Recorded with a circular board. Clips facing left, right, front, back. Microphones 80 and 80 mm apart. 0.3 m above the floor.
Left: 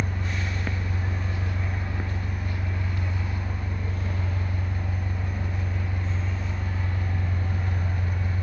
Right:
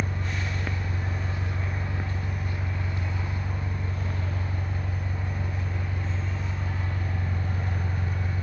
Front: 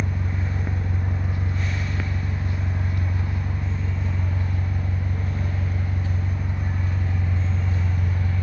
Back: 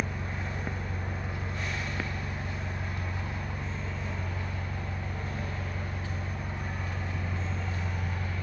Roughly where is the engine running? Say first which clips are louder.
Left 1 dB, front 5 dB; ahead right.